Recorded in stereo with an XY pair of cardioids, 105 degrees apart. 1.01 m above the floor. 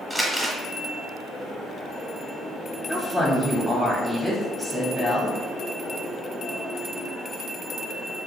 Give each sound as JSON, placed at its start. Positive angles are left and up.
{"t": 0.1, "sound": "crumpling", "azimuth_deg": -5, "distance_m": 0.9}
{"t": 2.9, "sound": "a woman speaking", "azimuth_deg": -5, "distance_m": 0.8}